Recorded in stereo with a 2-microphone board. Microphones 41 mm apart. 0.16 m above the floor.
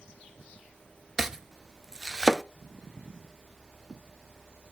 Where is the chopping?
10° right (ahead or behind), 0.6 m.